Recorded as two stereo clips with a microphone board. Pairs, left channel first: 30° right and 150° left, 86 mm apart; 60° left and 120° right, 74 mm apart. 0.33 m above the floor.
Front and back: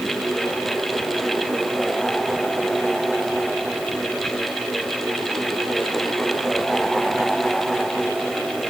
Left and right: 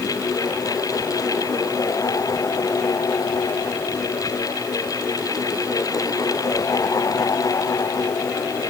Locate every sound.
Only background noise.